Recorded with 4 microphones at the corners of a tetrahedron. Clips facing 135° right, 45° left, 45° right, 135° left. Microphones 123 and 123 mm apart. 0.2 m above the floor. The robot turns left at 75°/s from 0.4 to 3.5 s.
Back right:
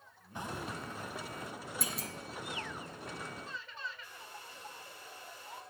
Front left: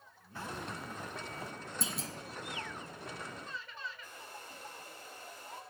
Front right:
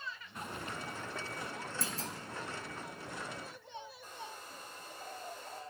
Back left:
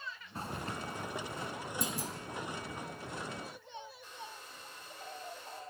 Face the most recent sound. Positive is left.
turn(degrees=0)